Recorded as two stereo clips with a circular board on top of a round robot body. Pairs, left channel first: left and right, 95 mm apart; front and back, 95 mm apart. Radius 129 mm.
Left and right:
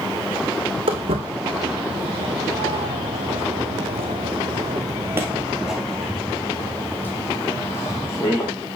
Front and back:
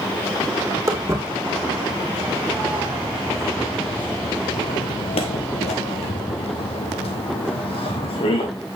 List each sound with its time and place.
0.9 s footsteps: 120° right, 2.5 m; by 8.5 s 30° left, 2.5 m